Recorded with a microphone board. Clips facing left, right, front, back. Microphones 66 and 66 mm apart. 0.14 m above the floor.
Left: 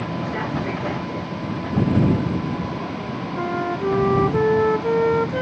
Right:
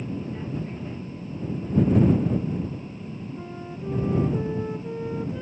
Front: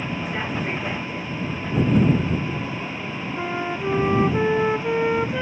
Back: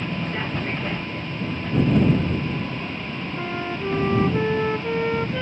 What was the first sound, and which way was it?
A vehicle, 80° left.